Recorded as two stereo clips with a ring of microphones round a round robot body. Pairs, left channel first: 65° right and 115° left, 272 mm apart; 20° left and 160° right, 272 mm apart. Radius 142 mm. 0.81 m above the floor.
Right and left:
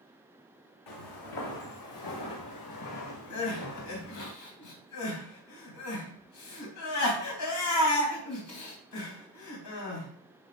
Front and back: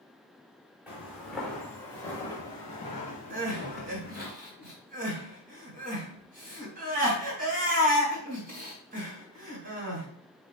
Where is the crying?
95° right, 4 m.